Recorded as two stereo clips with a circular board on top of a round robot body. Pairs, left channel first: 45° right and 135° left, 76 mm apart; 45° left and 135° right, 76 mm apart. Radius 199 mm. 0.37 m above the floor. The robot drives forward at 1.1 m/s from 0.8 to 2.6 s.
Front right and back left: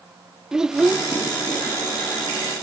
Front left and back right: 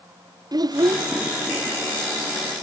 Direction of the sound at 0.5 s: 145° right.